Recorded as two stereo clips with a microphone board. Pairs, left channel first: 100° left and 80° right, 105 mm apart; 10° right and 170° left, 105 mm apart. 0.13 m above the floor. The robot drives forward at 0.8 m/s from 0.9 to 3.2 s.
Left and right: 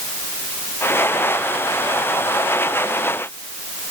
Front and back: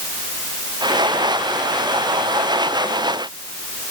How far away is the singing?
No singing in this recording.